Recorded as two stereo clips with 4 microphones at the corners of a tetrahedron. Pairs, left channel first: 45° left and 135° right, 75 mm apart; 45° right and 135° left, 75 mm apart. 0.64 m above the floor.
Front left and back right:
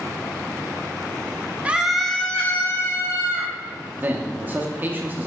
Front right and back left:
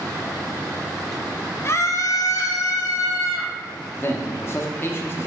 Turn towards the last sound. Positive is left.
turn(degrees=-80)